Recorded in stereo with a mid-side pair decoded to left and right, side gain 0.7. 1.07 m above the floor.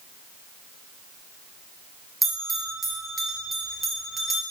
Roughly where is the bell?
Ahead.